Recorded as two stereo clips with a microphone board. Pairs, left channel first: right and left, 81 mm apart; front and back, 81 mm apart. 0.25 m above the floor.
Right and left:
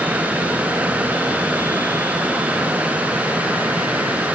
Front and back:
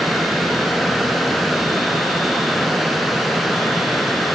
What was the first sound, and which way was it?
Only background noise.